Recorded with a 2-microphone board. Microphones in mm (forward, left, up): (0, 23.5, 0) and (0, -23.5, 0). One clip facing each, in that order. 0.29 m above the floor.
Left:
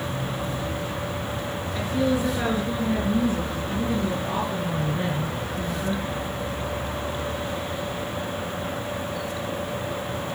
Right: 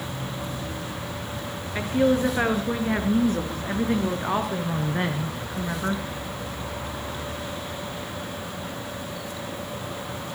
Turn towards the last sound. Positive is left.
turn(degrees=-75)  # may be behind; listen again after turning